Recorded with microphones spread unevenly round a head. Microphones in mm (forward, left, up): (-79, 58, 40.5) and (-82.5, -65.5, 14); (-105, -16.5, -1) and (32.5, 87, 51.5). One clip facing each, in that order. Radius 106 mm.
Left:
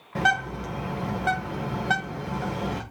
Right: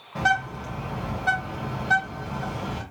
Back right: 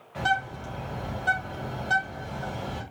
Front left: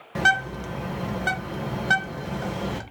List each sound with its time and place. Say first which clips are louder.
0.1 s a bird: right 1 dB, front left 2 dB; 30° left, 1.5 m